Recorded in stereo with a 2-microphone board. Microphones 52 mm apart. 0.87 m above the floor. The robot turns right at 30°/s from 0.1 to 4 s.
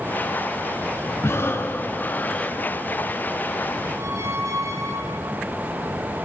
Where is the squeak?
80° right, 1.4 m; by 5.4 s 85° right, 1.4 m.